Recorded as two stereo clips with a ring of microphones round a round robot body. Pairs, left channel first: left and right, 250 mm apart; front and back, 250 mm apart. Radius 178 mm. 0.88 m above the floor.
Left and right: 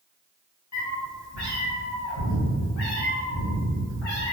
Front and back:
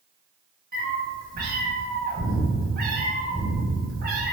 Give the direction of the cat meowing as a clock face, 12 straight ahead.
8 o'clock.